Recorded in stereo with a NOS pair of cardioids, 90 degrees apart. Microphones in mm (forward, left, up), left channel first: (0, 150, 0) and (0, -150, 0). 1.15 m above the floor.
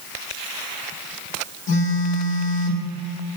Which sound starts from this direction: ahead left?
A phone buzzing, at 1.7 s.